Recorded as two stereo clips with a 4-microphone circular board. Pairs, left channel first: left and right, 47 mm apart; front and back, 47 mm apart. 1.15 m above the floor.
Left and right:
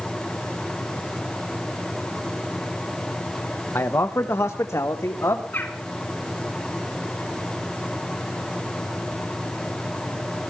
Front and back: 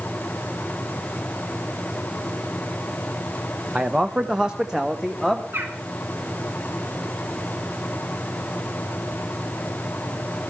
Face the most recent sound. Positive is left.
turn(degrees=140)